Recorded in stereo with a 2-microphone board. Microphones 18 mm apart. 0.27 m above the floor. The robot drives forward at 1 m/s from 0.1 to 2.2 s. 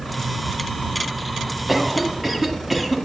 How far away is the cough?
About 2.0 m.